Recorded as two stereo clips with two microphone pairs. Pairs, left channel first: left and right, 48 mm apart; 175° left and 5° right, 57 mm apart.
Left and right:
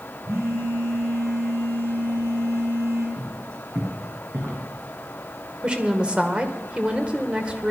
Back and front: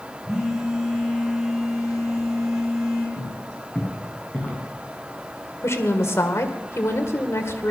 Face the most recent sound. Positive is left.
turn(degrees=-160)